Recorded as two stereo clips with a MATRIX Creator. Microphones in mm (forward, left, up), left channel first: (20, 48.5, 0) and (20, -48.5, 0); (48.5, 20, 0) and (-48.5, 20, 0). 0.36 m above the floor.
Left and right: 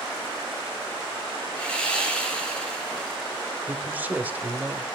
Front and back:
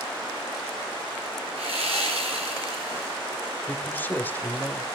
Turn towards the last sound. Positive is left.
turn(degrees=-40)